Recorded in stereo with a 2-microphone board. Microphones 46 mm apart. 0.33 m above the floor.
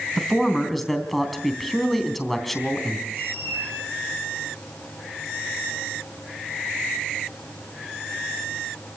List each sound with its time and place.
0.2 s a man speaking: centre (ahead or behind), 3.5 m
3.1 s a squeak: 50° right (ahead or behind), 9.5 m